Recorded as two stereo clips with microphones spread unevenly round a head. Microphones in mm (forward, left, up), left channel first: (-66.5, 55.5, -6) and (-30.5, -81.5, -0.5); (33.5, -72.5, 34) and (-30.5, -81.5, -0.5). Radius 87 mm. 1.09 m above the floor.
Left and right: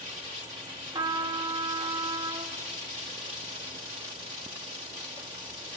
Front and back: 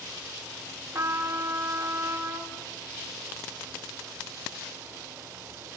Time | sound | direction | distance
0.9 | a trumpet | 135° right | 1.6 m